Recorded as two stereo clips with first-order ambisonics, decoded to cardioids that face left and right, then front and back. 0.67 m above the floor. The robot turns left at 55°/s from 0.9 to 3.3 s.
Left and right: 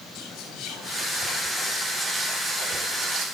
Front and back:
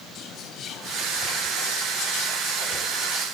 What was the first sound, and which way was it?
Whispering, 50° left.